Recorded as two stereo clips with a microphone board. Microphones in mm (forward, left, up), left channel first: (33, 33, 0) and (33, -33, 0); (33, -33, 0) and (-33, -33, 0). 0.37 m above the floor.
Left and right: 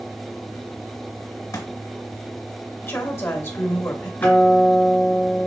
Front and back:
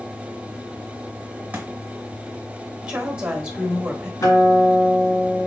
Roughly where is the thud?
Behind left.